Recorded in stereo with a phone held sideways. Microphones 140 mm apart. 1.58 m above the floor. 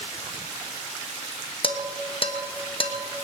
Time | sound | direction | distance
1.6 | dishes clattering | 40° left (ahead or behind) | 1.2 m